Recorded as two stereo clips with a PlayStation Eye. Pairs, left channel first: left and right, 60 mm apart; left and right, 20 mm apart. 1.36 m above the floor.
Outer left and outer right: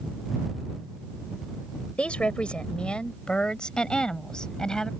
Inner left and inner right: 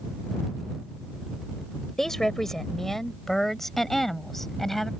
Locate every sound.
2.0 s a woman speaking: 20° left (ahead or behind); by 4.9 s 10° left (ahead or behind)